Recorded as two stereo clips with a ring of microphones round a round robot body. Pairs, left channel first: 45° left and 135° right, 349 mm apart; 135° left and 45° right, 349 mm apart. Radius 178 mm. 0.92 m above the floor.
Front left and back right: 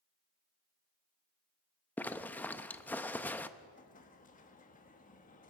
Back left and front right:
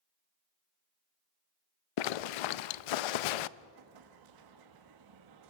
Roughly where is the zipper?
Behind left.